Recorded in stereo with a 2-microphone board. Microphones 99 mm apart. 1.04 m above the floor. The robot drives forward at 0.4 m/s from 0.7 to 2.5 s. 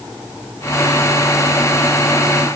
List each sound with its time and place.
Only background noise.